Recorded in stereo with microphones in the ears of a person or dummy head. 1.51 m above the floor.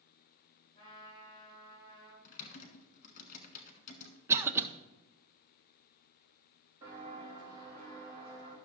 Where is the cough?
15° right (ahead or behind), 0.6 m.